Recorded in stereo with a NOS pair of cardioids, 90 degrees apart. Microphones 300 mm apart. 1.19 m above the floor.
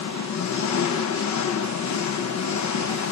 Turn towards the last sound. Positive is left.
turn(degrees=70)